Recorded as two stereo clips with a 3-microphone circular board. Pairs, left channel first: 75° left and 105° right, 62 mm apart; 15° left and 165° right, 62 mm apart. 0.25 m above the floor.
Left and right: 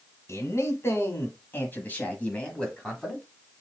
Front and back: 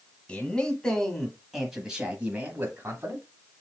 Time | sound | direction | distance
0.3 | a man speaking | 80° left | 1.6 m